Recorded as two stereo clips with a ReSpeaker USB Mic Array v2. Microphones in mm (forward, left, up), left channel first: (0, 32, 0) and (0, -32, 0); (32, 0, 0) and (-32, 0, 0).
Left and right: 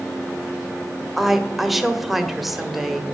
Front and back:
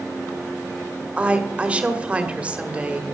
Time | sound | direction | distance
1.2 | a woman speaking | 170° right | 1.2 m